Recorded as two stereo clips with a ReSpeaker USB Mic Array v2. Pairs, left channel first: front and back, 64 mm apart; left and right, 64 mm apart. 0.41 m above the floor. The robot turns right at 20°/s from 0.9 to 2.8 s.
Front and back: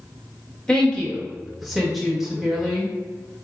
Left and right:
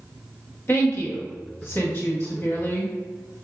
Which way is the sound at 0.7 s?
75° left.